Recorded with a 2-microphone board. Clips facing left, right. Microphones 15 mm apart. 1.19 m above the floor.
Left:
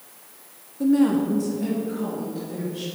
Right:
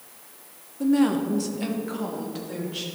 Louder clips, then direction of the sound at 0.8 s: Left 2 dB; 10° right (ahead or behind).